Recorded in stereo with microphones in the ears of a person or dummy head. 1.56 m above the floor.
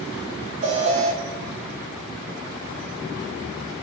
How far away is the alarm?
About 0.5 m.